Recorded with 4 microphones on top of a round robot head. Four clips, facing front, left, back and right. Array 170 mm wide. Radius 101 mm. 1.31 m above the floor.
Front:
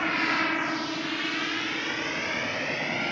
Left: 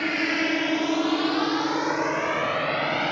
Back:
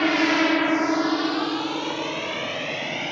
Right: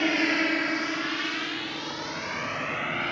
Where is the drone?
165° right; by 3.1 s 95° left.